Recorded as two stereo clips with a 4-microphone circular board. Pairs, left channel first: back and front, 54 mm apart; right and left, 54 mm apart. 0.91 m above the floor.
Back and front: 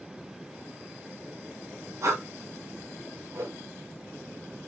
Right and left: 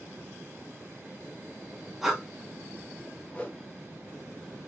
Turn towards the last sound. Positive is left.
turn(degrees=-25)